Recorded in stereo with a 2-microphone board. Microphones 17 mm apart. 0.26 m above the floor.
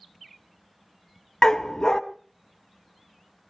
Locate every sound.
1.4 s a dog barking: 35° left (ahead or behind), 0.6 m